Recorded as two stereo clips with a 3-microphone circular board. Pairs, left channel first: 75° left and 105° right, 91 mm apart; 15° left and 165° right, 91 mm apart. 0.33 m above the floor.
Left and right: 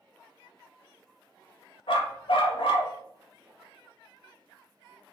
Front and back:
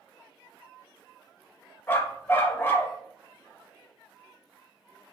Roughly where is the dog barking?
Left.